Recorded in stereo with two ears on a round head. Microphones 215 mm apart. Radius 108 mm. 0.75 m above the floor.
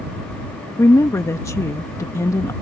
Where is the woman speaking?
10° left (ahead or behind).